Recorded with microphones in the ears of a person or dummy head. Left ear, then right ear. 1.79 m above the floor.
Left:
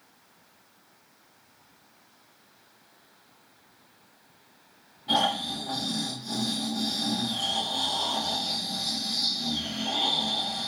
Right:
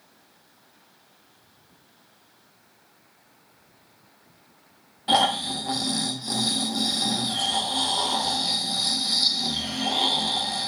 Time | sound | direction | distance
5.1 | snoring | 50° right (ahead or behind) | 0.5 m